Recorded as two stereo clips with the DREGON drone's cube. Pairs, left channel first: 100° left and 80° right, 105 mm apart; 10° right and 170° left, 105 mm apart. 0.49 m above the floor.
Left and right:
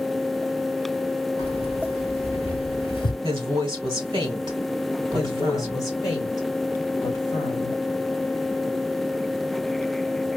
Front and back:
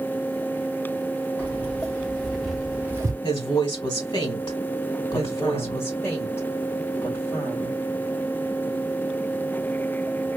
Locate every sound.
1.4 s keys jangling: 65° left, 2.5 m; by 3.1 s 125° left, 0.7 m
3.2 s a woman speaking: 40° right, 1.7 m
5.1 s a woman speaking: 50° left, 2.5 m